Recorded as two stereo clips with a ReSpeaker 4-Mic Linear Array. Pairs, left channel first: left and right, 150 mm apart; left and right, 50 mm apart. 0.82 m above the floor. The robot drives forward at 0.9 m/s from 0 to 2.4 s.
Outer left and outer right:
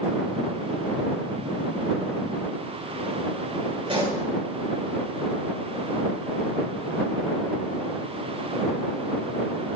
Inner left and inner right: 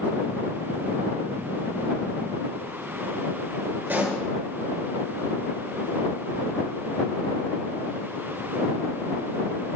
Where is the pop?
35° right (ahead or behind), 8 m.